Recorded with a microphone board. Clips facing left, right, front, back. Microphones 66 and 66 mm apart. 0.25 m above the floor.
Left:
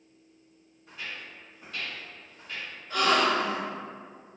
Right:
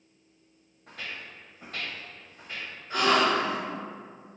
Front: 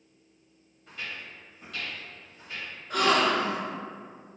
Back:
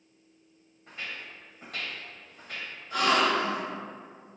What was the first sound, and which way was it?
Footsteps, 115° right.